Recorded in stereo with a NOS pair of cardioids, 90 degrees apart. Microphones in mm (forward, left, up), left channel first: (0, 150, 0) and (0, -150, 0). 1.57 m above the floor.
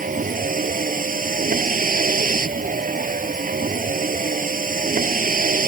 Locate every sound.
0.0 s a vehicle: 25° right